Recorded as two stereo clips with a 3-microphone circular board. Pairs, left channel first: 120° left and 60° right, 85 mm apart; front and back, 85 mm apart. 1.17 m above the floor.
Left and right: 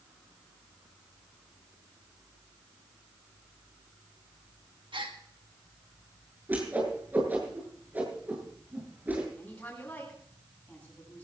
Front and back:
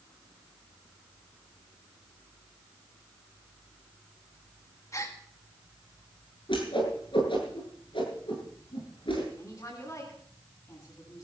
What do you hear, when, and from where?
4.9 s a gasp: 50° right, 2 m
6.5 s a whoosh: 10° left, 8.5 m
9.4 s a woman speaking: 50° left, 10 m